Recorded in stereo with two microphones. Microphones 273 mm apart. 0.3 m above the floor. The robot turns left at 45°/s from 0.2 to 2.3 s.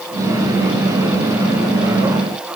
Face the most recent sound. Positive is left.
No sound to turn to.